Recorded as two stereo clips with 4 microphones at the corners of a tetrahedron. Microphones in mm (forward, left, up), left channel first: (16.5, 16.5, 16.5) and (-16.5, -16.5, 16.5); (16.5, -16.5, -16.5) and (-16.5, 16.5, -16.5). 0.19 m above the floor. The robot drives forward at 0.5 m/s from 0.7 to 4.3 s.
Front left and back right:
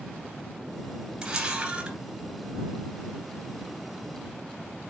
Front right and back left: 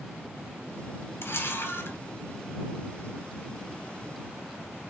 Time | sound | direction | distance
1.2 | a camera shutter | 70° right | 2.5 m